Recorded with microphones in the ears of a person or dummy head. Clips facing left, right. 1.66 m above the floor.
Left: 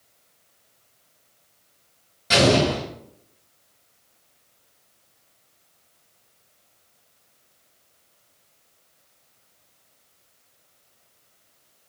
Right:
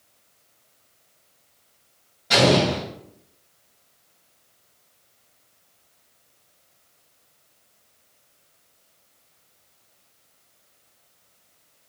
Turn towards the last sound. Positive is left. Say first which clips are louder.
# even
turn(degrees=20)  # may be behind; listen again after turning